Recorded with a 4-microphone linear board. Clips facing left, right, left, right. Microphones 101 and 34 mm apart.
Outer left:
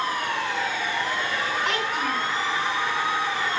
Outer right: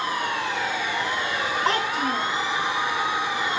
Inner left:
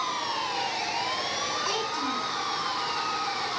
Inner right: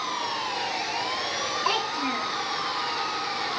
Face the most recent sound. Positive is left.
turn(degrees=-35)  # may be behind; listen again after turning